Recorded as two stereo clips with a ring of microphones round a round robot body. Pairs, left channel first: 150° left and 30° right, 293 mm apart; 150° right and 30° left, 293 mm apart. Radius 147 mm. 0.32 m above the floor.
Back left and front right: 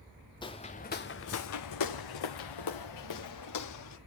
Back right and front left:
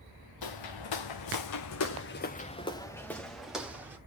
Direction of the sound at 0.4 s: 135° right.